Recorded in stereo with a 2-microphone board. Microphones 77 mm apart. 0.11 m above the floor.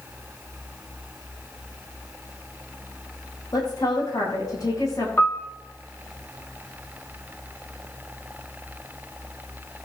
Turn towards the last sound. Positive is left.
turn(degrees=25)  # may be behind; listen again after turning